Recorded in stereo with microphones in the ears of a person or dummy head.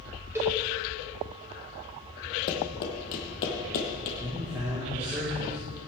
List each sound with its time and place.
0.3 s a cowbell: 15° right (ahead or behind), 1.8 m
2.5 s running footsteps: 50° left (ahead or behind), 2.5 m; by 4.1 s 45° left (ahead or behind), 2.0 m
4.2 s a man speaking: 20° right (ahead or behind), 2 m